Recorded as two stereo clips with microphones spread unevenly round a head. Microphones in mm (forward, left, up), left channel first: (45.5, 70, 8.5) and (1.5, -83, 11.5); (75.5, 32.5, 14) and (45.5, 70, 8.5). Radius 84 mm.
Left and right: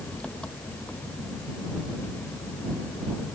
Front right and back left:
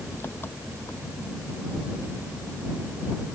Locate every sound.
0.0 s an engine running: 10° right